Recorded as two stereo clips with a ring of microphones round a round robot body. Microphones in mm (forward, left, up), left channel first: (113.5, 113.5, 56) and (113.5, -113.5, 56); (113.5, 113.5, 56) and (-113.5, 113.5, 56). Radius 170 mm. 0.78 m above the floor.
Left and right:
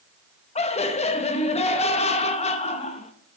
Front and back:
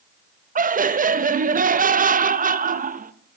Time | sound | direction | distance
0.6 | laughter | 140° left | 0.7 m